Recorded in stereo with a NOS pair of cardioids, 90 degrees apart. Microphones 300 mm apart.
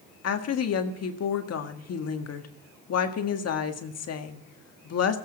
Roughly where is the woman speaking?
Ahead left.